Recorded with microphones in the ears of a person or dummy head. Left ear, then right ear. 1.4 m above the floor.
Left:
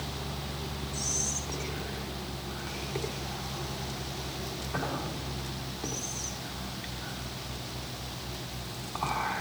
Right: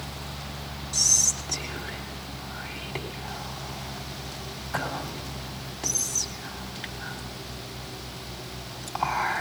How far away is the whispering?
About 3 m.